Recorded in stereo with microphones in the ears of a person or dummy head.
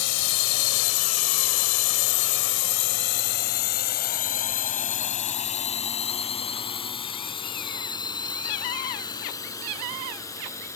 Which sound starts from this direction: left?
A drone, at 0.0 s.